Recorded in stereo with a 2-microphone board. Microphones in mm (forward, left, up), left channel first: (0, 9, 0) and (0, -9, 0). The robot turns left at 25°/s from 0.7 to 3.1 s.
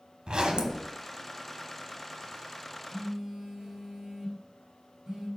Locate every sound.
0.3 s a zipper: 45° right (ahead or behind), 0.9 m; by 0.9 s 40° right (ahead or behind), 0.9 m
2.9 s a phone buzzing: 35° right (ahead or behind), 2.5 m; by 5.3 s 30° right (ahead or behind), 2.5 m